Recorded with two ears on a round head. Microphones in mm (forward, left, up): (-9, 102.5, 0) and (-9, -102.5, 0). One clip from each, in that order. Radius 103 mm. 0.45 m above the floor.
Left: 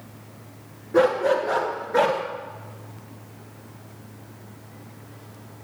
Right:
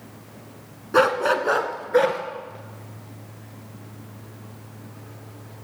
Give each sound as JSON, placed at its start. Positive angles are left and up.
{"t": 0.9, "sound": "a dog barking", "side_deg": -80, "distance_m": 1.4}